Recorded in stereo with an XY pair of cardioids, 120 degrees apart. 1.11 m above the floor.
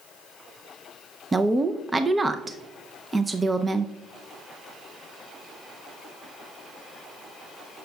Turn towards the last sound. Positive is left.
turn(degrees=-20)